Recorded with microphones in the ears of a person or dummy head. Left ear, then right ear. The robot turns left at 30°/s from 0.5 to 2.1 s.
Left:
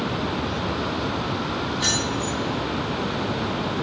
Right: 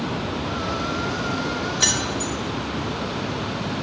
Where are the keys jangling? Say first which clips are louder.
Right 2 dB; 30° right (ahead or behind), 0.6 m; by 2.3 s 25° right (ahead or behind), 0.6 m.